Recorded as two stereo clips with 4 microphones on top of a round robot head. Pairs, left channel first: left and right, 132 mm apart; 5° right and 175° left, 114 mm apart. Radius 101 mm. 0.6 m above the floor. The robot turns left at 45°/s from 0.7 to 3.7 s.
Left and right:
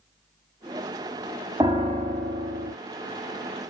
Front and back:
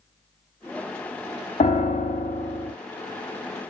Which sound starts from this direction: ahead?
A piano, at 1.6 s.